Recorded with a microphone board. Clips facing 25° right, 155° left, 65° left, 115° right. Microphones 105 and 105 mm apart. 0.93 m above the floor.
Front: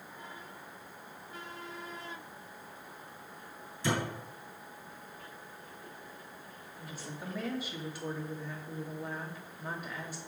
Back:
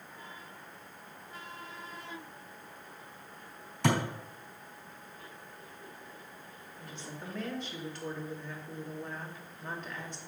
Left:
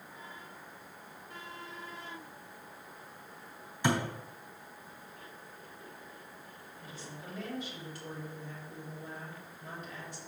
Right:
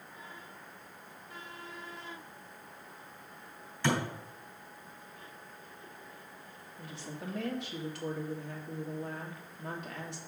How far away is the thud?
About 3 m.